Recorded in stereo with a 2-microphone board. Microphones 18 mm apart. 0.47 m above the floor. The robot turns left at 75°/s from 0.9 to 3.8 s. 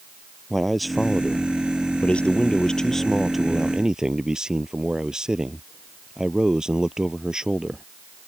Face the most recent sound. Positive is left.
turn(degrees=-35)